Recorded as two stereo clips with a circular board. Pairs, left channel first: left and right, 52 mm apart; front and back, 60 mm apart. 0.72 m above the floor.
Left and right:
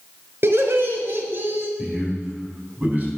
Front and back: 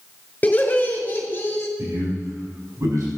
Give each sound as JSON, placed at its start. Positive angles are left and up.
{"t": 0.4, "sound": "laughter", "azimuth_deg": -60, "distance_m": 3.5}
{"t": 1.8, "sound": "a man speaking", "azimuth_deg": -150, "distance_m": 6.0}